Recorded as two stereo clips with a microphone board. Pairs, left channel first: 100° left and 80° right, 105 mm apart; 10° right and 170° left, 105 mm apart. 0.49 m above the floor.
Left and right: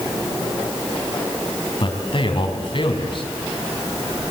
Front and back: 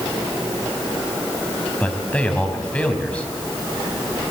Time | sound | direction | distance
1.8 | a man speaking | 65° left | 4.5 m